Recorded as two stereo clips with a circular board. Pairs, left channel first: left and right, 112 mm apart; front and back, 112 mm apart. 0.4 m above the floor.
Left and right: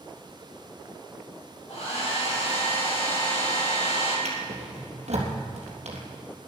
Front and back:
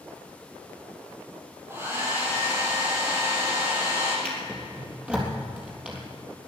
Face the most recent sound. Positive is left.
turn(degrees=-100)